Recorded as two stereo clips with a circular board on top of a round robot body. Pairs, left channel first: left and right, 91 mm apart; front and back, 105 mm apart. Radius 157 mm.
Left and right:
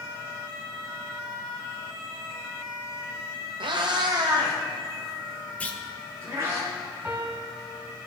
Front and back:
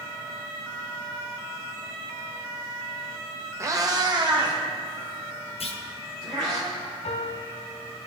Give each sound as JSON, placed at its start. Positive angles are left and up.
{"t": 3.6, "sound": "a cat meowing", "azimuth_deg": -120, "distance_m": 1.0}
{"t": 5.6, "sound": "a clunk", "azimuth_deg": 15, "distance_m": 1.2}
{"t": 7.0, "sound": "a piano", "azimuth_deg": -20, "distance_m": 1.5}